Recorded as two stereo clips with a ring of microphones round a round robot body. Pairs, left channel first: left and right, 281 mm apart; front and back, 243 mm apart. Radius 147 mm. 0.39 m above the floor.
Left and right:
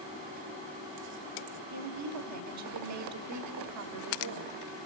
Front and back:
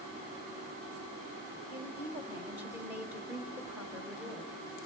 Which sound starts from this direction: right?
A woman speaking, at 1.7 s.